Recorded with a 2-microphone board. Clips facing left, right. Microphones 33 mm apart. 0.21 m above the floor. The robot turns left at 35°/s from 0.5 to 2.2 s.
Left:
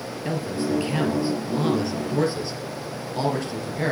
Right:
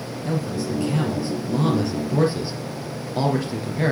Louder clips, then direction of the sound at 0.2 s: Even; 50° left.